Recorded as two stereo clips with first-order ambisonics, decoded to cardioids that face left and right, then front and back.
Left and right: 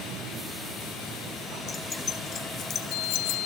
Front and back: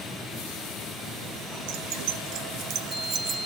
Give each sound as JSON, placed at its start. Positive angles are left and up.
{"t": 1.7, "sound": "keys jangling", "azimuth_deg": 160, "distance_m": 1.2}